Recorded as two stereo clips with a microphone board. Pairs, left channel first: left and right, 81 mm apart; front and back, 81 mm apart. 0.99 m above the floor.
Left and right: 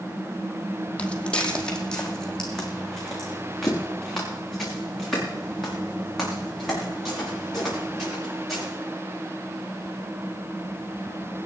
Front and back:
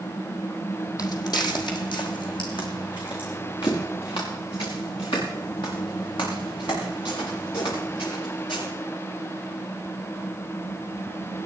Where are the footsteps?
20° left, 1.6 m; by 8.7 s straight ahead, 9.5 m.